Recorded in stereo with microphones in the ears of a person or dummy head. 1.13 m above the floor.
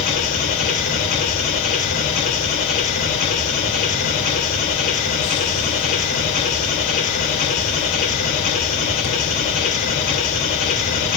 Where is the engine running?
35° left (ahead or behind), 2.5 m.